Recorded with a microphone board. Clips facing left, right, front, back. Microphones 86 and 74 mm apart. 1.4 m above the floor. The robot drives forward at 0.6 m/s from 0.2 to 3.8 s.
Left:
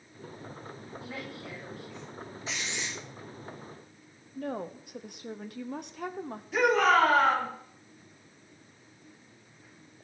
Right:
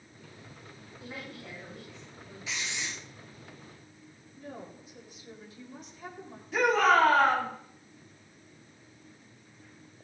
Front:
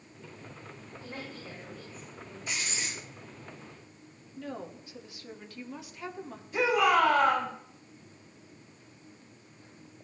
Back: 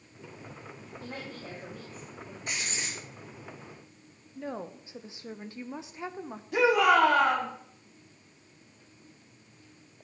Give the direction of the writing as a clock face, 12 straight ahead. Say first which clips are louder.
Even, even; 7 o'clock.